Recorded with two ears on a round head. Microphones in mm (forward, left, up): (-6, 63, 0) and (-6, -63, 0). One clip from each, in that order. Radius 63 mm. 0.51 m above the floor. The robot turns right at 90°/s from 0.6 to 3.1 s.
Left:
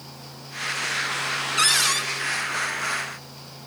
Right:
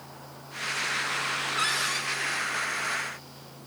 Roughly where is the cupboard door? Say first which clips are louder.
Left 9 dB; left.